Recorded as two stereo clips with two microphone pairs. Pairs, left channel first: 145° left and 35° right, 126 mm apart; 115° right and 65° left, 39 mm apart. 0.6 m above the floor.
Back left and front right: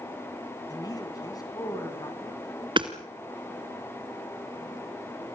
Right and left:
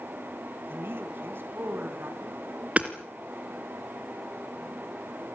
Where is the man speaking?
85° left, 5 m.